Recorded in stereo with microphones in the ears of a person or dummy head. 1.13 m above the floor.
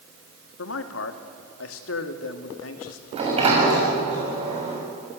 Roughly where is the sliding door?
Right.